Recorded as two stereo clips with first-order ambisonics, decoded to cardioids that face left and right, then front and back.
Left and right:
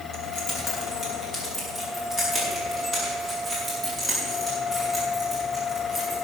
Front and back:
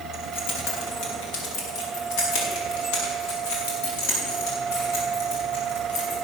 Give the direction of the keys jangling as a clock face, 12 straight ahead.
11 o'clock.